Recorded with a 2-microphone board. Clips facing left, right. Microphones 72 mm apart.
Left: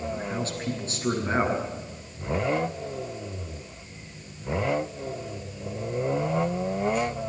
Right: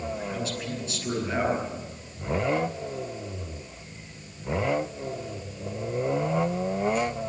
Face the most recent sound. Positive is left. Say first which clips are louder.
# left 1 dB
turn(degrees=45)  # may be behind; listen again after turning